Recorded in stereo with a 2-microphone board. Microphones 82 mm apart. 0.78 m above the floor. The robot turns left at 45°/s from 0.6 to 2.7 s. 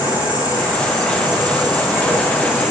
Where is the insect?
80° right, 1.5 m; by 2.7 s 175° right, 1.5 m.